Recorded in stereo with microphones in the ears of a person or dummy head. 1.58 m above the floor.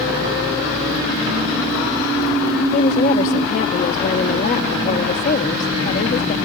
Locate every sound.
2.7 s a woman speaking: 40° left (ahead or behind)